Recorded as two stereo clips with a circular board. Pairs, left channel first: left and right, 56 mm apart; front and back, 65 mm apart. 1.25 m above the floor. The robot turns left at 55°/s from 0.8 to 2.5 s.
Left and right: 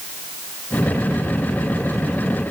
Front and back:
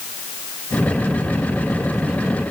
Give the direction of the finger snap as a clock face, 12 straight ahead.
I don't hear a finger snap.